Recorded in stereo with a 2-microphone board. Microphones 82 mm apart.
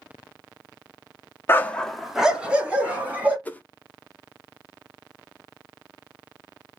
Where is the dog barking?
30° left (ahead or behind), 0.6 m; by 3.4 s 20° right (ahead or behind), 2.5 m.